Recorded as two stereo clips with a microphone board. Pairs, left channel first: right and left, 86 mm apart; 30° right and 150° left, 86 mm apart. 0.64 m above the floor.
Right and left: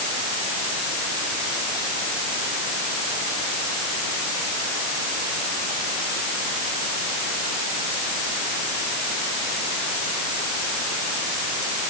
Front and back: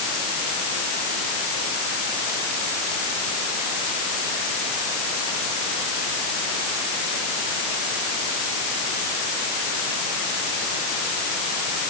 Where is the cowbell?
No cowbell in this recording.